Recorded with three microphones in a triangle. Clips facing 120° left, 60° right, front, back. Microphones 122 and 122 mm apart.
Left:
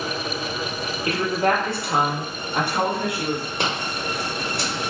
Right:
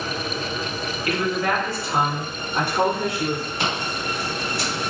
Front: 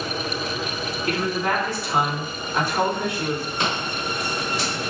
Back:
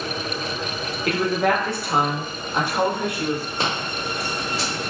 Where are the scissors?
130° left, 1.2 m.